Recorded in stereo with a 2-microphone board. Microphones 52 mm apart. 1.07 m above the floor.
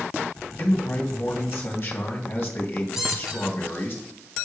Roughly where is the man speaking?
Left.